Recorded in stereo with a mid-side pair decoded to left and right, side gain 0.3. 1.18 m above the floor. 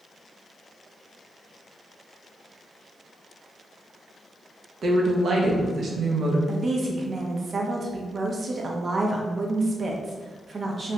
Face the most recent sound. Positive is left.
turn(degrees=-55)